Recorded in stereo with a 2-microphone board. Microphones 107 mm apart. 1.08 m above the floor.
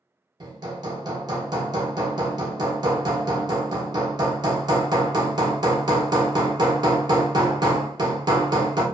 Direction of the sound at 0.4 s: 40° right (ahead or behind).